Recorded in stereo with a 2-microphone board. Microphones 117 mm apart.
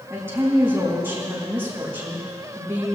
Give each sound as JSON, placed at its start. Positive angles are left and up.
{"t": 0.1, "sound": "a woman speaking", "side_deg": -20, "distance_m": 6.0}